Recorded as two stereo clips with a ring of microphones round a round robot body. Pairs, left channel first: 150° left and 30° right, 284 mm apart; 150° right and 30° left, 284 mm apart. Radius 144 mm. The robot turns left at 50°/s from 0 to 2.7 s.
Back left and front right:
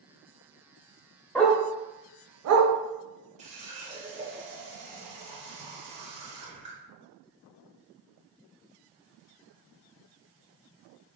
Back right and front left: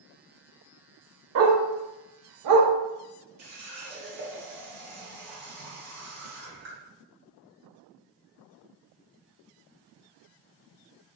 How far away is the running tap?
About 1.0 m.